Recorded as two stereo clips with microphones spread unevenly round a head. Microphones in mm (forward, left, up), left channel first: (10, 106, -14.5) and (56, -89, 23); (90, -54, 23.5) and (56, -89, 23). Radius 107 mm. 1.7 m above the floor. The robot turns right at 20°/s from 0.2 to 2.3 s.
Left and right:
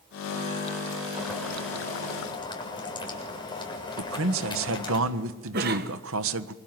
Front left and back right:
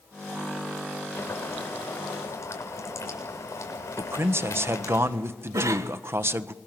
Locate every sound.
1.1 s boiling: 10° left, 7 m; by 5.0 s 35° left, 7 m
4.0 s a man speaking: 100° right, 1.5 m
5.5 s a cough: 125° right, 2 m